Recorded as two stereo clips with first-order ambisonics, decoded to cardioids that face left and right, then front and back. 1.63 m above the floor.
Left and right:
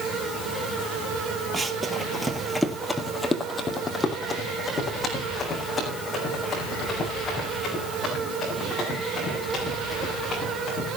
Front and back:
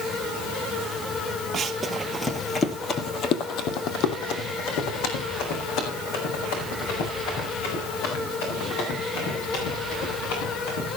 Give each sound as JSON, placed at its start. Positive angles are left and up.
{"t": 1.5, "sound": "running footsteps", "azimuth_deg": -140, "distance_m": 1.7}